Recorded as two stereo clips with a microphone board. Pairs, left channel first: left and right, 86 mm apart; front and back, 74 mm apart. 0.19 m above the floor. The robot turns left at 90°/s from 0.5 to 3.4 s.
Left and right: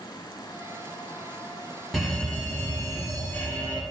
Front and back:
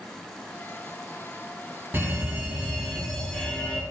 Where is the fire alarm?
175° right, 2.5 m; by 3.8 s 50° left, 2.5 m.